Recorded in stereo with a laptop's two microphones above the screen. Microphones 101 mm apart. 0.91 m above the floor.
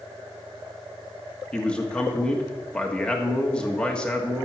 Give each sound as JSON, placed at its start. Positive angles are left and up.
{"t": 1.5, "sound": "a man speaking", "side_deg": 10, "distance_m": 1.3}